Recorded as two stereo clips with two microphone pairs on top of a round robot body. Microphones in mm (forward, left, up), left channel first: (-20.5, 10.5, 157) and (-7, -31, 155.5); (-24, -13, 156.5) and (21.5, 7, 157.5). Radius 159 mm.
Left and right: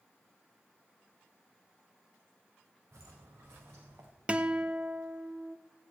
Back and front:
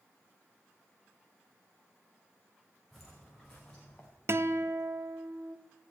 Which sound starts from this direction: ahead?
A guitar, at 4.3 s.